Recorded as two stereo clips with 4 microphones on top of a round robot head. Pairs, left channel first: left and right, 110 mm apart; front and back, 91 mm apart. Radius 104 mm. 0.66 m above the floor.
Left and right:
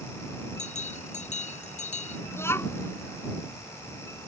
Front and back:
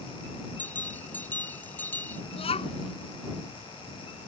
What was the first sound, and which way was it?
A bell, 75° left.